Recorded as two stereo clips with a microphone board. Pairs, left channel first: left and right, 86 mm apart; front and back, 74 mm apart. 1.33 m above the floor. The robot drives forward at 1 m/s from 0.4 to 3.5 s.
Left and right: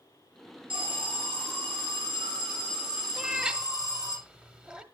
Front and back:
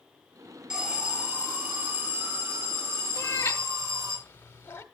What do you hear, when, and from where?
0.7 s an alarm: 100° right, 4.5 m; by 4.2 s 130° right, 5.5 m
3.2 s a cat meowing: 15° right, 1.3 m; by 4.8 s 25° right, 1.1 m